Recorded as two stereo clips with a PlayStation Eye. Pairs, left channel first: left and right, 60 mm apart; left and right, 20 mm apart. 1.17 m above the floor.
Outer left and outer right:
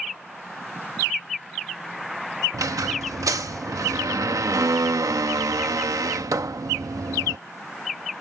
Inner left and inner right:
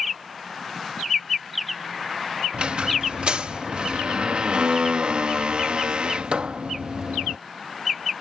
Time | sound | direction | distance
2.5 | a squeak | 70° right (ahead or behind) | ?